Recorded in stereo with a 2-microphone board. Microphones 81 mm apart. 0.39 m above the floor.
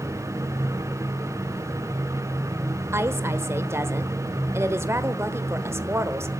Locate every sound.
2.9 s a woman speaking: 35° right (ahead or behind), 1.1 m